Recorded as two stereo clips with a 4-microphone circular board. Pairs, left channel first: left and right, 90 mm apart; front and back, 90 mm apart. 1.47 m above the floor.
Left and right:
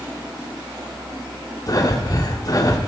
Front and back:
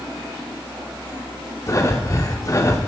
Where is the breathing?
50° left, 1.7 m.